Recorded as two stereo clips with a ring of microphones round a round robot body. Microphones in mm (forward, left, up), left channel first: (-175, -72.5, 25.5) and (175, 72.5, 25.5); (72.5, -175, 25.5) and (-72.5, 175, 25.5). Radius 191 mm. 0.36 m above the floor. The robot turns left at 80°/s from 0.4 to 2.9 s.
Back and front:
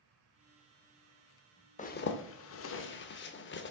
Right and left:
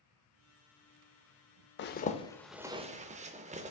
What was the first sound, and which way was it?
A zipper, 100° right.